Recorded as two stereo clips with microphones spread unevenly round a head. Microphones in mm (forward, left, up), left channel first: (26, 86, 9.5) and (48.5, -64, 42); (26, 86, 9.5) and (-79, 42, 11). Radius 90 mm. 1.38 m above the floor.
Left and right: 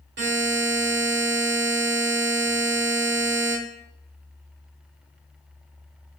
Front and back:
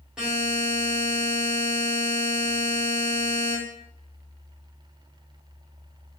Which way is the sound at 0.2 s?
70° right.